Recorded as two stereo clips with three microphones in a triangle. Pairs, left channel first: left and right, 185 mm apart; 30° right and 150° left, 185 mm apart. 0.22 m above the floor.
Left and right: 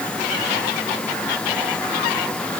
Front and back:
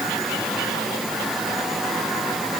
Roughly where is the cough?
No cough in this recording.